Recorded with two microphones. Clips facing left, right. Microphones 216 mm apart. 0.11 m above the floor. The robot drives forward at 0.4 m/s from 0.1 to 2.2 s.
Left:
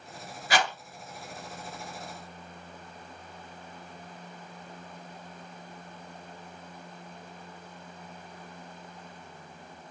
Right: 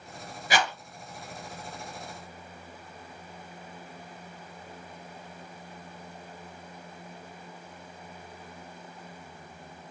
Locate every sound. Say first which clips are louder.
0.5 s a rattle: even; 20° right (ahead or behind), 1.8 m